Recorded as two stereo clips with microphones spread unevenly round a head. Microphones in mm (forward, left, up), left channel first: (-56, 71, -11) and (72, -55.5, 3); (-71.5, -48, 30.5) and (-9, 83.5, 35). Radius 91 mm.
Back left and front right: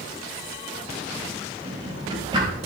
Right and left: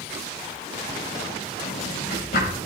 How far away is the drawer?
About 3.5 m.